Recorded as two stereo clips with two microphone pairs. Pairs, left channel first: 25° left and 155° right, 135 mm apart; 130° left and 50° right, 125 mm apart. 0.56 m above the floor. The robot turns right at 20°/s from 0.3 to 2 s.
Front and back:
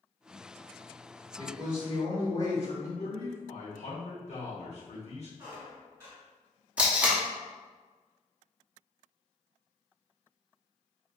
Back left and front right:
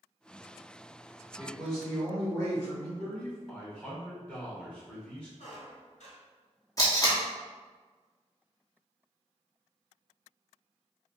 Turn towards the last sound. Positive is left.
turn(degrees=135)